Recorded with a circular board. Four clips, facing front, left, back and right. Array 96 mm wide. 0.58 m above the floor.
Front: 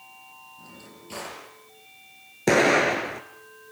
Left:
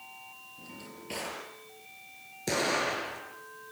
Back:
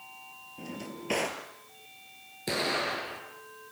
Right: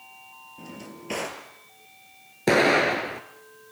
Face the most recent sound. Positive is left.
turn(degrees=-40)